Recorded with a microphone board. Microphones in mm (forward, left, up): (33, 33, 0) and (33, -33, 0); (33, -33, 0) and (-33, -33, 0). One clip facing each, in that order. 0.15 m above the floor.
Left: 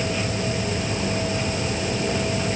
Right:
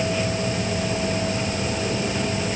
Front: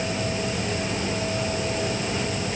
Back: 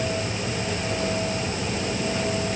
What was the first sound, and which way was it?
Only background noise.